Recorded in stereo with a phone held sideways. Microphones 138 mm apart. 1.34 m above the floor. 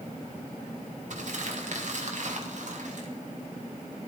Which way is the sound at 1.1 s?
60° right (ahead or behind).